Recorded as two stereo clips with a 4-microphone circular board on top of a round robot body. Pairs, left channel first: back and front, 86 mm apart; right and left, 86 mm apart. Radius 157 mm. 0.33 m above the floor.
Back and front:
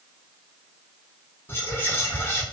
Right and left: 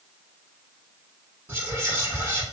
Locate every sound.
1.5 s whispering: 130° left, 1.5 m